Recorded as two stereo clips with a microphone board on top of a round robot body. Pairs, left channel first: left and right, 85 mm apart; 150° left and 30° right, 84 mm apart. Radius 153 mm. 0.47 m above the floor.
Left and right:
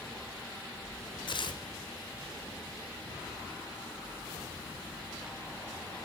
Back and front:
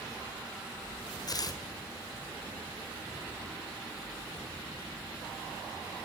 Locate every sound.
1.3 s tearing paper: 110° left, 1.9 m